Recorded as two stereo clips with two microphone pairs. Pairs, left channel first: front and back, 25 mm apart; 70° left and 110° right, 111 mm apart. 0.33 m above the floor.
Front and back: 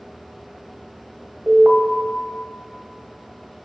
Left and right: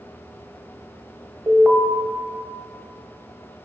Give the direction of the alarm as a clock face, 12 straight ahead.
6 o'clock.